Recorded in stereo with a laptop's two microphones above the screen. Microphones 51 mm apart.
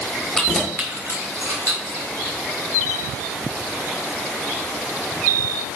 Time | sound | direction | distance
0.3 | keys jangling | 10° left (ahead or behind) | 0.9 m